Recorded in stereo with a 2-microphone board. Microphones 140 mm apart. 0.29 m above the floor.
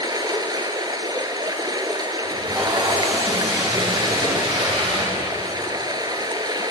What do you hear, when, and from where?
0.0 s running water: 30° right (ahead or behind), 1.3 m
2.2 s tape being pulled: 30° right (ahead or behind), 9.5 m